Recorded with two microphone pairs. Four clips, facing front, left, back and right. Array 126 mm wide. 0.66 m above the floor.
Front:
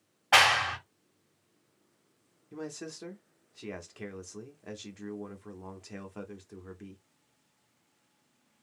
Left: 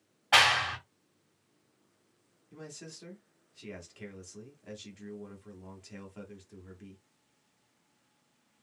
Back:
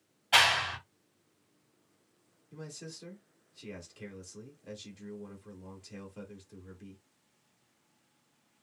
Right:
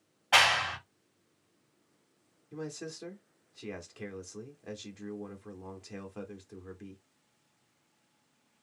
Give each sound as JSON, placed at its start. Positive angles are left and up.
{"t": 0.3, "sound": "a clap", "azimuth_deg": 20, "distance_m": 1.2}
{"t": 2.5, "sound": "a man speaking", "azimuth_deg": -30, "distance_m": 1.0}